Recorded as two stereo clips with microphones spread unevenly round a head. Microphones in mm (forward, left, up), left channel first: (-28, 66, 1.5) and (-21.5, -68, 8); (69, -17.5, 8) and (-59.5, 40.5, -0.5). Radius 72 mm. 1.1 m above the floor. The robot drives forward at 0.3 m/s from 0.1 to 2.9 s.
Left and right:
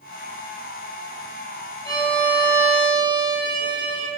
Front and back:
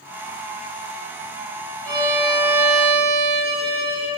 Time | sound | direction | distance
1.9 | a violin | 145° right | 1.5 m